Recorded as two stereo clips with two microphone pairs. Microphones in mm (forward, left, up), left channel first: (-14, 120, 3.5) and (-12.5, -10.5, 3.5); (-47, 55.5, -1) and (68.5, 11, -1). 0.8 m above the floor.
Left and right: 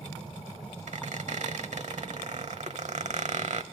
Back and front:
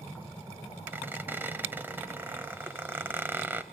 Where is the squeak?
90° right, 1.0 m.